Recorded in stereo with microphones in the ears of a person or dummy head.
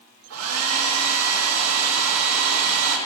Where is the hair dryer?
80° right, 1.2 m.